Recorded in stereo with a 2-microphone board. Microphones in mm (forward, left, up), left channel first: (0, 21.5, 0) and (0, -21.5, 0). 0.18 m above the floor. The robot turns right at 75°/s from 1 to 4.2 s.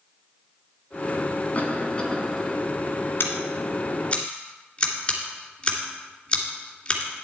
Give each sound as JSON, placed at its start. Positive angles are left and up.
{"t": 1.6, "sound": "a cough", "azimuth_deg": 110, "distance_m": 1.8}
{"t": 3.2, "sound": "scissors", "side_deg": 60, "distance_m": 2.5}